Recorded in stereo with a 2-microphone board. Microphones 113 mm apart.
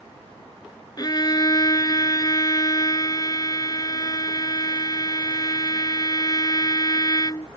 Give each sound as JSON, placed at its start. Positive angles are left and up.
{"t": 1.0, "sound": "a violin", "side_deg": 35}